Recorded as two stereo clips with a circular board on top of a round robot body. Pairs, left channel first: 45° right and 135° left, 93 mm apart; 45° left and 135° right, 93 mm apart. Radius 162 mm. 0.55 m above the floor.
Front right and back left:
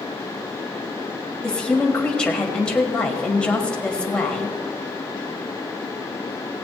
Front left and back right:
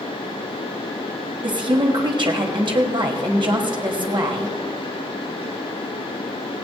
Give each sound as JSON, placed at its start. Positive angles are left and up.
{"t": 1.4, "sound": "a woman speaking", "azimuth_deg": -125, "distance_m": 1.9}